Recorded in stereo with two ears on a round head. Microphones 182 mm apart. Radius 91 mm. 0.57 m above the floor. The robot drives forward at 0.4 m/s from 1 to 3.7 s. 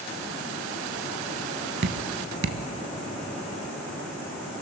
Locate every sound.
1.8 s dripping: 55° right (ahead or behind), 0.7 m; by 2.6 s 60° right (ahead or behind), 0.7 m